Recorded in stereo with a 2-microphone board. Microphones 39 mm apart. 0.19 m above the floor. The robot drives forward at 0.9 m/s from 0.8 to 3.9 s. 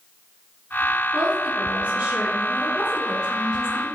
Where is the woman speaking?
35° right (ahead or behind), 2 m; by 3.9 s 20° right (ahead or behind), 4 m.